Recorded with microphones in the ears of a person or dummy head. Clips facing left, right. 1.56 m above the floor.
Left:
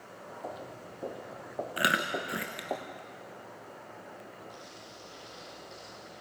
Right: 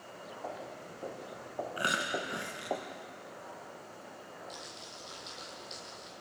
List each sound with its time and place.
0.4 s footsteps: 20° left (ahead or behind), 1.9 m; by 2.8 s centre (ahead or behind), 1.8 m
1.8 s chewing: 20° left (ahead or behind), 0.7 m
4.5 s crumpling: 25° right (ahead or behind), 9 m